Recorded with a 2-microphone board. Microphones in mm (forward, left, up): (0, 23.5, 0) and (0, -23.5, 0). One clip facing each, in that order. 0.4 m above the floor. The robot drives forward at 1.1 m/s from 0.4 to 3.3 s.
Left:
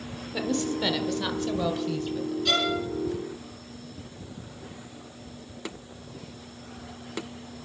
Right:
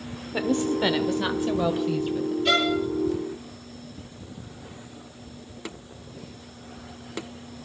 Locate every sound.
0.3 s a woman speaking: 25° right (ahead or behind), 1.0 m; by 2.4 s 10° right (ahead or behind), 2.5 m
2.5 s a violin: 20° right (ahead or behind), 4 m